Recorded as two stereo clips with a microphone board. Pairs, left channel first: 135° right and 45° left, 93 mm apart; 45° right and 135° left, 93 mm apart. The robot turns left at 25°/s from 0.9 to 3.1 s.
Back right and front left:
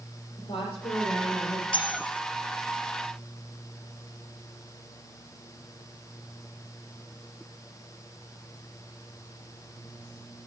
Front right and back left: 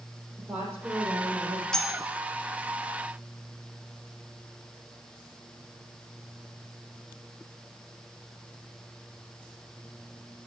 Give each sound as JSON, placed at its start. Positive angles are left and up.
{"t": 0.4, "sound": "a woman speaking", "azimuth_deg": -150, "distance_m": 7.0}
{"t": 1.7, "sound": "cutlery clinking", "azimuth_deg": -125, "distance_m": 1.6}